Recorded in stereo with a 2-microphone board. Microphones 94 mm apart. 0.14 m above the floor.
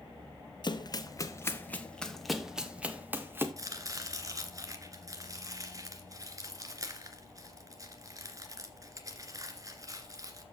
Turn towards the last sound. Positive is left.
turn(degrees=-35)  # may be behind; listen again after turning